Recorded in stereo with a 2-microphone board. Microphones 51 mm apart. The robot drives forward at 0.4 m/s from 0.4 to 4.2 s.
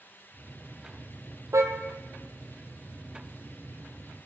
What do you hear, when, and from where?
1.5 s a car horn: 70° right (ahead or behind), 2.5 m; by 1.7 s 75° right (ahead or behind), 2.5 m